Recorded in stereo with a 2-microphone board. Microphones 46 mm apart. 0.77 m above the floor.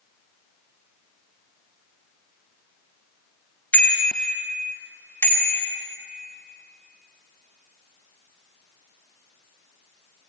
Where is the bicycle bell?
35° left (ahead or behind), 3 m; by 5.8 s 50° left (ahead or behind), 4 m.